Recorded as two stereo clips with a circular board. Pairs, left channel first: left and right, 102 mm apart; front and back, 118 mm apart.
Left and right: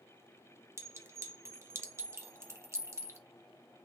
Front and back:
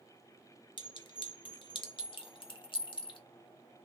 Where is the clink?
35° right, 0.8 m.